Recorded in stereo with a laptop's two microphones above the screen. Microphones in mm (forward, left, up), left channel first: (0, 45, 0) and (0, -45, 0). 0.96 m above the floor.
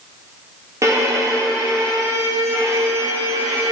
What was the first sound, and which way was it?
A violin, 35° right (ahead or behind).